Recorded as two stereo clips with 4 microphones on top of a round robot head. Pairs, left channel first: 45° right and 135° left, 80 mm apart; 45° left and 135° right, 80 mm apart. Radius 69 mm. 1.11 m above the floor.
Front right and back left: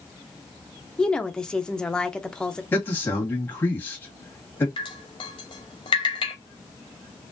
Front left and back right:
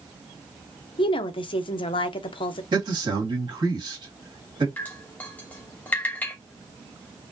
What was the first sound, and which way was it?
A woman speaking, 35° left.